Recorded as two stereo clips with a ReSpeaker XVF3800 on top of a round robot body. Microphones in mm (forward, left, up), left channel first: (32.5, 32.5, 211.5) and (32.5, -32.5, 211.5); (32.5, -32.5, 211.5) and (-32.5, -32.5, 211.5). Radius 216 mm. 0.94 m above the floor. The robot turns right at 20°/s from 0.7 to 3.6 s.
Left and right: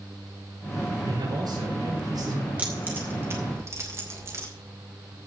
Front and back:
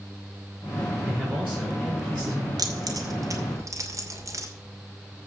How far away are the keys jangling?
About 2.5 m.